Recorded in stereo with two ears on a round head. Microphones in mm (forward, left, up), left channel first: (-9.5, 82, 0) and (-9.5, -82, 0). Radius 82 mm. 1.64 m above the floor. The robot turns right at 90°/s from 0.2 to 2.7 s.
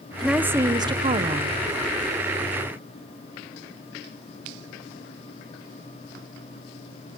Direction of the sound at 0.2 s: Centre (ahead or behind).